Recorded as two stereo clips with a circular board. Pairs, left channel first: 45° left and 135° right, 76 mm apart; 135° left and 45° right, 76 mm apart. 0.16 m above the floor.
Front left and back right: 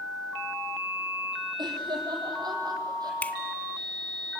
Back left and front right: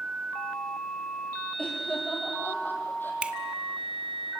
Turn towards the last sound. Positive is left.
turn(degrees=10)